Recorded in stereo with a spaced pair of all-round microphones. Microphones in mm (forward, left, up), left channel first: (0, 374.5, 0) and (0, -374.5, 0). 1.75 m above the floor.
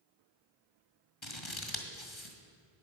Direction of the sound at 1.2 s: 40° left (ahead or behind).